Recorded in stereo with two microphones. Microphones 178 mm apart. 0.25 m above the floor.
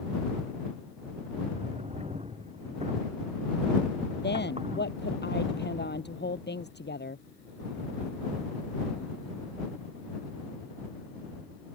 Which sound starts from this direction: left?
A woman speaking, at 4.2 s.